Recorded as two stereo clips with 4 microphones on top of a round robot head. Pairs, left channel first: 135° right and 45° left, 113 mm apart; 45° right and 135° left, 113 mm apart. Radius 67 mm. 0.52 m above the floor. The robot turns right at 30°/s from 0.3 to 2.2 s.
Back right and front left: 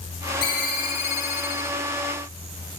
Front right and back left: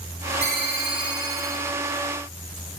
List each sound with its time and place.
0.4 s a ringtone: 170° left, 2.5 m; by 1.8 s 150° right, 2.5 m